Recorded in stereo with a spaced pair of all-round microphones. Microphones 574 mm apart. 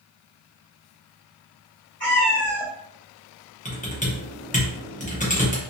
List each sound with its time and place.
2.0 s a cat meowing: 20° right (ahead or behind), 1.7 m
3.6 s typing on a keyboard: 15° left (ahead or behind), 0.8 m